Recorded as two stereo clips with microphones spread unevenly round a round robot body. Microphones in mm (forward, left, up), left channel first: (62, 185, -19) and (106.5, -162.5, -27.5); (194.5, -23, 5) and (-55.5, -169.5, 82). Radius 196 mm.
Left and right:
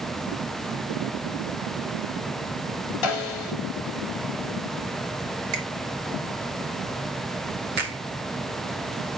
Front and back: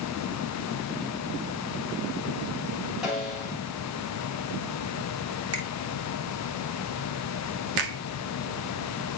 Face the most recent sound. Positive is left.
turn(degrees=-150)